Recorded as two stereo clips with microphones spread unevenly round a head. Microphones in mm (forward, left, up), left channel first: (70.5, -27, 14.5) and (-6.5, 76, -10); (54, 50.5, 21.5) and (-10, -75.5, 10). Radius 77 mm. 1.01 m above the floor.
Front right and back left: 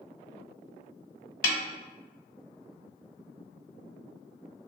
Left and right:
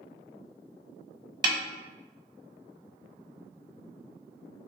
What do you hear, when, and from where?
1.4 s a snare drum: 55° right, 0.9 m